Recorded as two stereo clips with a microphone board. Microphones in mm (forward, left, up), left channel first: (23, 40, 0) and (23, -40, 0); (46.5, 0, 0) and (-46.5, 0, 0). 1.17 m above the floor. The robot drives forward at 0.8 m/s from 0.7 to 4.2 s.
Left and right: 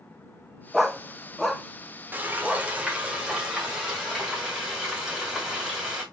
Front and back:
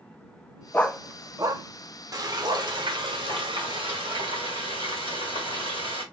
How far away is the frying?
About 1.1 m.